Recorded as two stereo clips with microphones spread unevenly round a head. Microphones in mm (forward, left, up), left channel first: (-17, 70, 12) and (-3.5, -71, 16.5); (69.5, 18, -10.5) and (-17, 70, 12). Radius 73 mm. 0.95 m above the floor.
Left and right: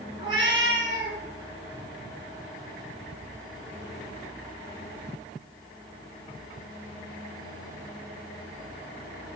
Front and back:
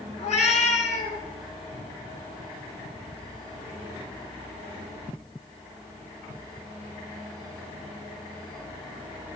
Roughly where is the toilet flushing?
I don't hear a toilet flushing.